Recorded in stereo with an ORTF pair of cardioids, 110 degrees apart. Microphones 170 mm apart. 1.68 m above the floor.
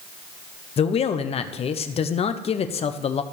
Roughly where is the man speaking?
Ahead left.